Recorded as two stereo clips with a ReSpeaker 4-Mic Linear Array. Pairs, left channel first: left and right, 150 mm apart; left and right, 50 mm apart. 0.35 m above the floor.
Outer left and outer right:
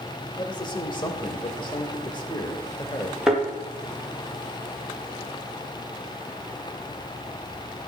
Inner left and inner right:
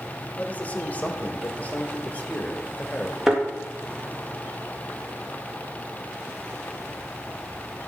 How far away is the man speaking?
About 1.1 m.